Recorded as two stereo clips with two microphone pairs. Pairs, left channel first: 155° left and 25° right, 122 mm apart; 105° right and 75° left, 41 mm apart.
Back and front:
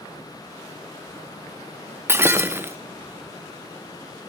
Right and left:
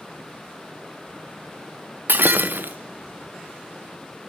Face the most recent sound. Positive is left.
turn(degrees=45)